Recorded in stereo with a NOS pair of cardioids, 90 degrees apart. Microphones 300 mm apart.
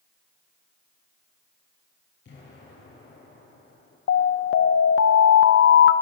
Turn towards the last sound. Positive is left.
turn(degrees=45)